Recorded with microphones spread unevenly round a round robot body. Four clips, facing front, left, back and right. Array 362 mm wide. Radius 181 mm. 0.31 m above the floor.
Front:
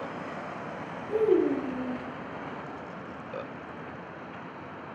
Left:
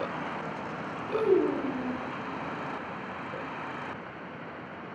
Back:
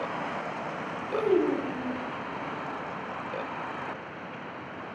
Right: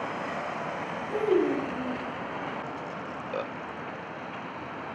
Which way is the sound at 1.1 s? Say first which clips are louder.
Even, front 1 dB; 100° left.